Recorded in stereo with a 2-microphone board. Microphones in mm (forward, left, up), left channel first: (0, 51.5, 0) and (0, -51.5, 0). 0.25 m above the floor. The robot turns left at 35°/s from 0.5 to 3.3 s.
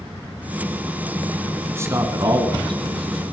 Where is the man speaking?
25° right, 2.5 m; by 3.2 s 80° right, 2.5 m.